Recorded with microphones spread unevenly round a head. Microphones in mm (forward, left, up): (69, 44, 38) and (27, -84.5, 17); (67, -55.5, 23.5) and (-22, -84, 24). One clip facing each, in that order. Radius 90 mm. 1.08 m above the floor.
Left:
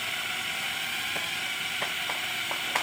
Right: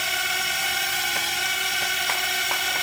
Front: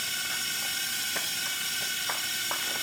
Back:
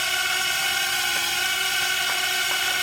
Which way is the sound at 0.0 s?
155° right.